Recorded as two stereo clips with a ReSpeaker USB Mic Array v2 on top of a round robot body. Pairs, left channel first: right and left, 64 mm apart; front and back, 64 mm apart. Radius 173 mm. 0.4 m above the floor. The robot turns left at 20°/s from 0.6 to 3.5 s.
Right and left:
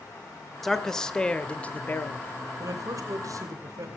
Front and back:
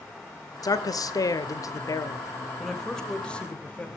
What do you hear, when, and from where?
0.6 s a man speaking: straight ahead, 1.6 m; by 2.5 s 40° right, 1.6 m
2.6 s a man speaking: 85° left, 2.5 m; by 3.9 s 65° left, 2.5 m